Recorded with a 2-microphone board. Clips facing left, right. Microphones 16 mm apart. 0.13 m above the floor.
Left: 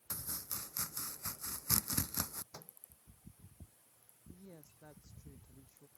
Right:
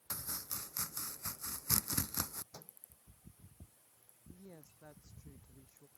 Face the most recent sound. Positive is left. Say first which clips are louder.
# even
turn(degrees=-75)  # may be behind; listen again after turning